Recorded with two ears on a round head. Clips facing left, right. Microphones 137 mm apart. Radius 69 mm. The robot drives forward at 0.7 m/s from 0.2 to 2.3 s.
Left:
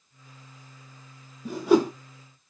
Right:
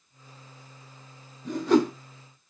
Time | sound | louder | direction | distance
1.4 | a whoosh | left 1 dB | 10° left (ahead or behind) | 1.0 m